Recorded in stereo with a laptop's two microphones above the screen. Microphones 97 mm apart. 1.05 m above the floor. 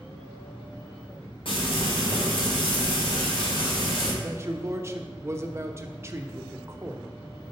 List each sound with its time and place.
1.4 s frying: 70° left (ahead or behind), 3 m
4.2 s a man speaking: 30° right (ahead or behind), 0.9 m